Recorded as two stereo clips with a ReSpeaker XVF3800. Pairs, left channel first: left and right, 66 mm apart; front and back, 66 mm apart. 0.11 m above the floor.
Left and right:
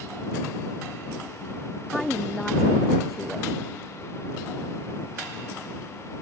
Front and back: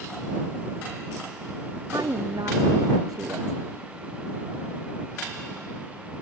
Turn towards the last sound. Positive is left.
turn(degrees=170)